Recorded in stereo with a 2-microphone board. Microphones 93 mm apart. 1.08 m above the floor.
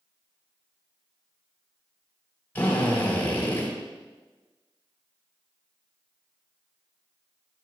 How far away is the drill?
About 3.5 m.